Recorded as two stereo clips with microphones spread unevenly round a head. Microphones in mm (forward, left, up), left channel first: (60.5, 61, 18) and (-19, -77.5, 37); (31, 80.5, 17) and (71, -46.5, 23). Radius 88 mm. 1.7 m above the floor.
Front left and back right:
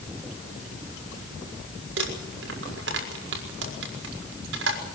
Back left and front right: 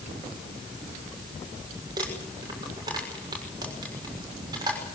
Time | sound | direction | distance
2.0 | crumpling | 140° right | 6 m